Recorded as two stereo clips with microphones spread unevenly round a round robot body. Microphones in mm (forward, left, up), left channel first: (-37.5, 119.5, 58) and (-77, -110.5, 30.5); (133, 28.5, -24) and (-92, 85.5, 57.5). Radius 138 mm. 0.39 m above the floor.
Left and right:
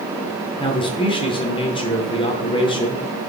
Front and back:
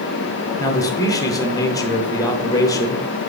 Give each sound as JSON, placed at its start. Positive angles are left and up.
{"t": 0.6, "sound": "a man speaking", "azimuth_deg": 15, "distance_m": 1.0}